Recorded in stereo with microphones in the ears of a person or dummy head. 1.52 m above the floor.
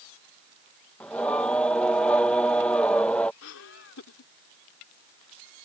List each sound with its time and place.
1.0 s singing: 10° left (ahead or behind)
3.4 s laughter: 70° left (ahead or behind)